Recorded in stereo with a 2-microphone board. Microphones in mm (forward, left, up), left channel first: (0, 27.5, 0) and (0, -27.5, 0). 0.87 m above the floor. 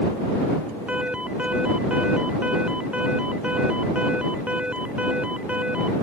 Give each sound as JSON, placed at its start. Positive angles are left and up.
{"t": 0.9, "sound": "an alarm", "side_deg": -25}